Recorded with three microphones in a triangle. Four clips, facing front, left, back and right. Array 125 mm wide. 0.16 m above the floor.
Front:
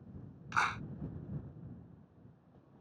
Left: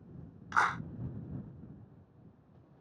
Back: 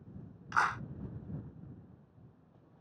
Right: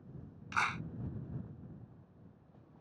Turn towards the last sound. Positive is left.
turn(degrees=110)